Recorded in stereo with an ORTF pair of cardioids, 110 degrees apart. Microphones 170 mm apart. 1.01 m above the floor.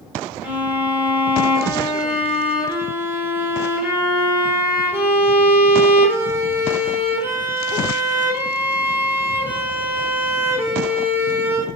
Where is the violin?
10° right, 3.5 m.